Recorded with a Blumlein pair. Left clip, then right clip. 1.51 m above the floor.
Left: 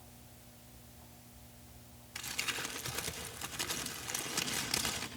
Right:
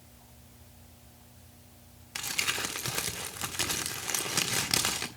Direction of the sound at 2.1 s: 35° right.